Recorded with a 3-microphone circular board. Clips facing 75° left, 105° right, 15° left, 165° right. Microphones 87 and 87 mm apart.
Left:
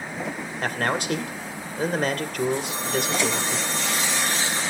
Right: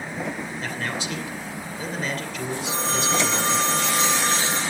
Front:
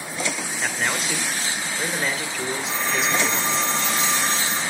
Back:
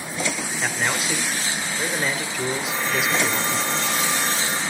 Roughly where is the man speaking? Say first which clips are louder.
Left 7 dB, back 1 dB; left.